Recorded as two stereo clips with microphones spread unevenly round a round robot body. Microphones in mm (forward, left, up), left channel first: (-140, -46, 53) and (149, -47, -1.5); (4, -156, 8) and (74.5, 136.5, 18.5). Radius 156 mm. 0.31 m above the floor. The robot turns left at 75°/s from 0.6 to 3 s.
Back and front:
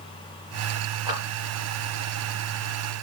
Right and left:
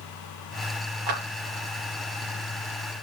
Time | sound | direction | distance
1.1 | a clap | 80° left | 4 m